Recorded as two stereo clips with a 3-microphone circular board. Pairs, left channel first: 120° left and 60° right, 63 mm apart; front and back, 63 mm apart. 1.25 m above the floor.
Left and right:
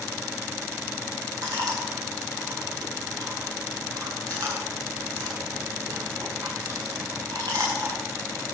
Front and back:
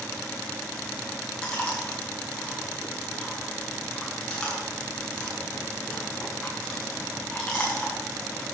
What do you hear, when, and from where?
1.4 s chewing: 80° right, 6 m